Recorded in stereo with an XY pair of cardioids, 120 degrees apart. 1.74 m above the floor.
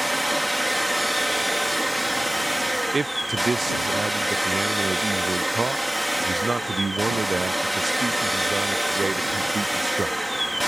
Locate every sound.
0.0 s a machine running: 5° right
2.9 s a man speaking: 20° right